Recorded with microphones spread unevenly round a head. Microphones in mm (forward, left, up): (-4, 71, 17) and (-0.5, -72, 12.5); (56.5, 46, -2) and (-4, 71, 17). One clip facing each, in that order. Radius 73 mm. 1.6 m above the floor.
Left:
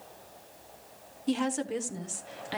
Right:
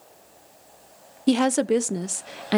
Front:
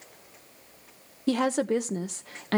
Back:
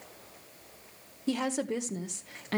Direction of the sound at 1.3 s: 90° right.